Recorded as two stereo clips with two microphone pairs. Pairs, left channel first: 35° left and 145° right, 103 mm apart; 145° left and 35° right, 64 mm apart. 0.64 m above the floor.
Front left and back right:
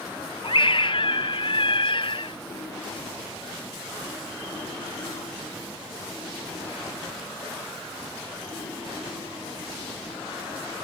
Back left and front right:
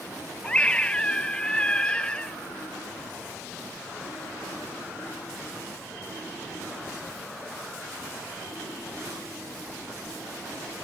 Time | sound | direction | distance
0.4 | a scream | 70° left | ?